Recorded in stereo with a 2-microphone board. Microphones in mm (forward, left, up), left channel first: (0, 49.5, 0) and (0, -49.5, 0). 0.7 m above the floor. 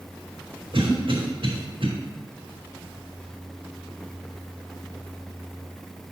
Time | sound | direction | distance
0.7 | a cough | 60° right (ahead or behind) | 2.5 m